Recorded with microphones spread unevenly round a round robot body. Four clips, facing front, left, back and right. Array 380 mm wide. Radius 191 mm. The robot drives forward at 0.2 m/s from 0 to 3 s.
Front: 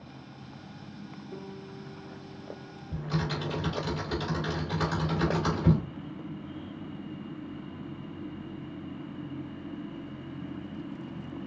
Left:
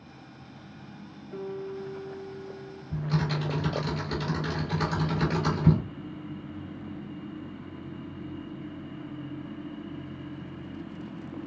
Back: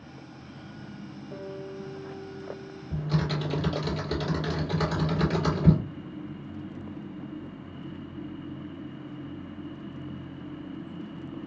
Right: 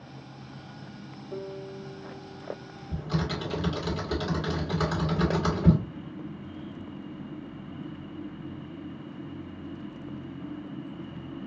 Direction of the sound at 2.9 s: 165° right.